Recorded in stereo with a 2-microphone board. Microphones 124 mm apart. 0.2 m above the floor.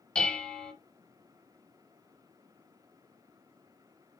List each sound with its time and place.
0.1 s dishes clattering: 10° left (ahead or behind), 1.0 m